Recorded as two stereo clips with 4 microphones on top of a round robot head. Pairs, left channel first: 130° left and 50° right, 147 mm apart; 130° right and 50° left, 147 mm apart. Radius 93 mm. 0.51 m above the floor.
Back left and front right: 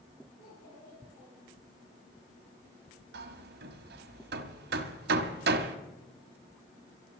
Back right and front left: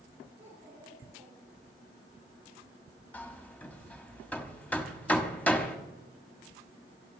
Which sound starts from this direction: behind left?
A child speaking, at 0.4 s.